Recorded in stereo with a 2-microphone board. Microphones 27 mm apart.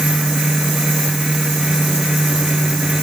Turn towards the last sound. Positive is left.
No sound to turn to.